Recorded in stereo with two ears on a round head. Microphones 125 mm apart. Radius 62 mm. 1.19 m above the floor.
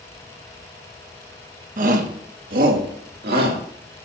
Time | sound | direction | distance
1.8 | a shout | 60° right (ahead or behind) | 1.5 m